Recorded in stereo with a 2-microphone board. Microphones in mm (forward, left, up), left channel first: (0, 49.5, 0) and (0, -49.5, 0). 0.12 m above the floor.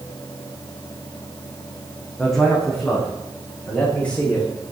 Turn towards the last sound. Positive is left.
turn(degrees=15)  # may be behind; listen again after turning